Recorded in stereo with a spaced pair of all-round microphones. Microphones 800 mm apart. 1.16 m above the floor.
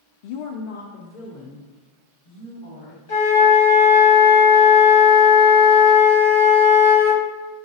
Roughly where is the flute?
Left.